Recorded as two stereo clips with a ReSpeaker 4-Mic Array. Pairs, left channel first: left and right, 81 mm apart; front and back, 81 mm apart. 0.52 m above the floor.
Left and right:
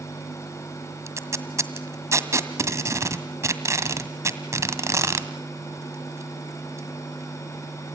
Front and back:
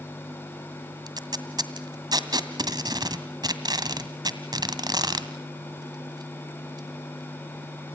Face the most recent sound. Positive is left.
turn(degrees=-145)